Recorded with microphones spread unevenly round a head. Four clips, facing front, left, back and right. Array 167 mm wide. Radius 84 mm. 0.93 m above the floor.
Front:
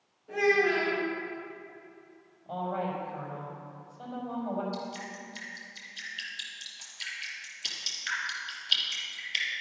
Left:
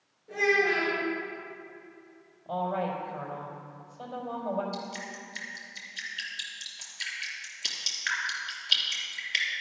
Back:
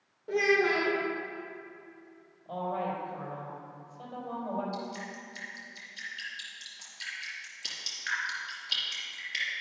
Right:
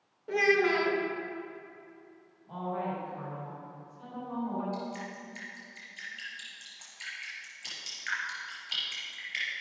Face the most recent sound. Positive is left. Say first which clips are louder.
# even, even
turn(degrees=120)